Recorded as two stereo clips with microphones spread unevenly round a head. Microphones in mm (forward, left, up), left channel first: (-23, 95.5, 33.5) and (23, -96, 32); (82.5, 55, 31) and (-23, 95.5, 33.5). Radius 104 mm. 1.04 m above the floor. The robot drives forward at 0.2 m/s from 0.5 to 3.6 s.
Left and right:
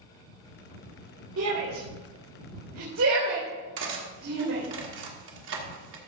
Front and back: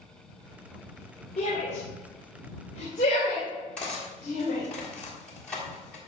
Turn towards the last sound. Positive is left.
turn(degrees=-105)